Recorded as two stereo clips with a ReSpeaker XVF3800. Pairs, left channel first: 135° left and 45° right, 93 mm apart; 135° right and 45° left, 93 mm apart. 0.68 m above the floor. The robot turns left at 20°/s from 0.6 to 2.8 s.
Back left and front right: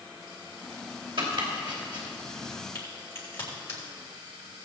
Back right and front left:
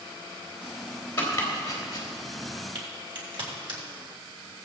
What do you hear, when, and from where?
1.2 s chopping: 70° right, 3 m; by 2.1 s 85° right, 3 m
2.8 s a crack: 75° left, 4 m